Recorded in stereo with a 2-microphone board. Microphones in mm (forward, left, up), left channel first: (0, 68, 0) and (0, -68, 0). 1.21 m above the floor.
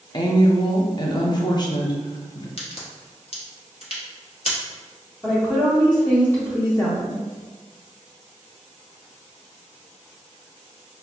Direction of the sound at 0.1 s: 35° left (ahead or behind).